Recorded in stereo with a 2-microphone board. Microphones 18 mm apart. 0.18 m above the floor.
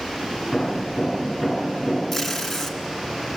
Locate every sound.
0.5 s hammering: 25° left (ahead or behind), 8.5 m
2.1 s tape being pulled: 15° left (ahead or behind), 1.9 m